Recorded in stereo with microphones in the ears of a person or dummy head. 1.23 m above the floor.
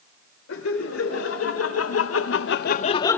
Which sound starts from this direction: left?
Laughter, at 0.5 s.